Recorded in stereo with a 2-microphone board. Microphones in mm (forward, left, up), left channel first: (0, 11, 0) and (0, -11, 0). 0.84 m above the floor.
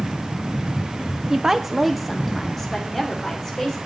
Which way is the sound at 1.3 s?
30° right (ahead or behind).